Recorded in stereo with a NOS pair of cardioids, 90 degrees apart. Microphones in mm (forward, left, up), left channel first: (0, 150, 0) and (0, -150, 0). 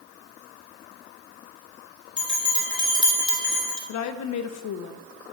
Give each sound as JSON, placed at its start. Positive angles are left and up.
{"t": 2.2, "sound": "a bell", "azimuth_deg": 15, "distance_m": 3.5}
{"t": 3.9, "sound": "a woman speaking", "azimuth_deg": 65, "distance_m": 0.9}